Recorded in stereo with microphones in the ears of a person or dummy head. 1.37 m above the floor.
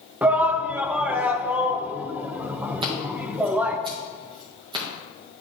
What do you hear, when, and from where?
0.2 s a shout: 5° right (ahead or behind), 0.6 m
2.8 s scissors: 25° right (ahead or behind), 1.5 m